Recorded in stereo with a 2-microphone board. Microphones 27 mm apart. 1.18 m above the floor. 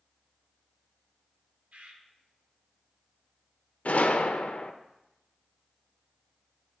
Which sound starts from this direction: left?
A gunshot, at 3.9 s.